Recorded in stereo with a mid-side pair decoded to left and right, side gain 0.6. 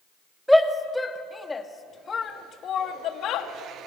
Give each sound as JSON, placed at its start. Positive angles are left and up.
{"t": 0.5, "sound": "a shout", "azimuth_deg": 5, "distance_m": 2.5}